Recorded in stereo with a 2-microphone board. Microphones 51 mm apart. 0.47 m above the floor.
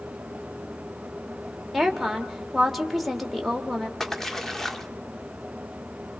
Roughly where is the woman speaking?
Centre.